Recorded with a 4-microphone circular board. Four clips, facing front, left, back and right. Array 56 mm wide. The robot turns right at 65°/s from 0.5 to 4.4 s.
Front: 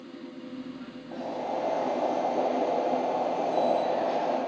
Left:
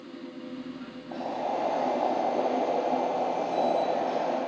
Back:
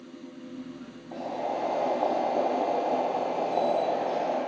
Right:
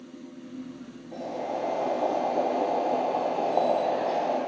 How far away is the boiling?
About 1.9 m.